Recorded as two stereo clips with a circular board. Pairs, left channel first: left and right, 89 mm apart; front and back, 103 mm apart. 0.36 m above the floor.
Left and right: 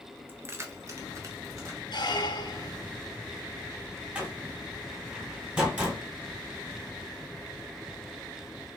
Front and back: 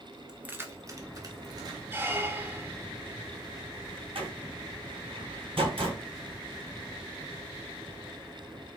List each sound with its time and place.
0.3 s keys jangling: 110° right, 0.5 m; by 1.8 s 135° right, 1.4 m
1.9 s a squeak: 115° left, 0.5 m
4.2 s a door slam: 165° right, 2.5 m